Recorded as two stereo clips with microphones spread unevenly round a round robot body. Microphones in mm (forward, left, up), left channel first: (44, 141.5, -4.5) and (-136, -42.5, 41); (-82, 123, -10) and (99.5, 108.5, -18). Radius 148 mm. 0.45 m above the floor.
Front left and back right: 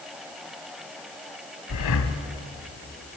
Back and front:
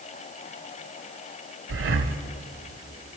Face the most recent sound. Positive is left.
turn(degrees=5)